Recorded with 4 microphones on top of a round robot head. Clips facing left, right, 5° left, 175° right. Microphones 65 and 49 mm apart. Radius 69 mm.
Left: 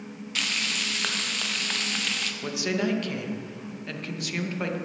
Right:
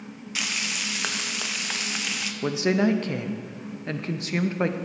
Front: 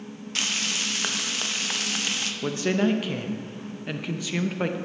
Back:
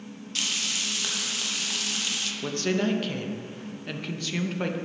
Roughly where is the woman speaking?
Ahead right.